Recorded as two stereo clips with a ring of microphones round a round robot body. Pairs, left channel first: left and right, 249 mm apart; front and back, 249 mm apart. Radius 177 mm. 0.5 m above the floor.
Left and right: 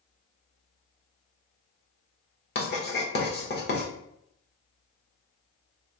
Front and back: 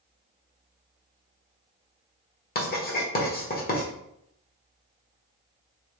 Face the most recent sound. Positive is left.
turn(degrees=50)